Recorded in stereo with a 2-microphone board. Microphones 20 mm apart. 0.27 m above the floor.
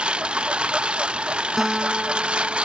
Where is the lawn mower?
80° right.